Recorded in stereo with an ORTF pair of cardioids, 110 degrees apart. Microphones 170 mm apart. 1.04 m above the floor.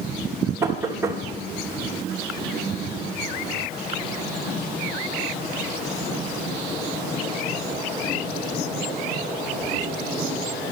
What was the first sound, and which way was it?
Knocking, 15° right.